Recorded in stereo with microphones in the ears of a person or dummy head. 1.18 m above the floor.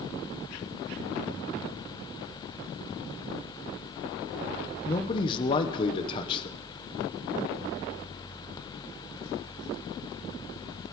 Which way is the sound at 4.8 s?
25° left (ahead or behind).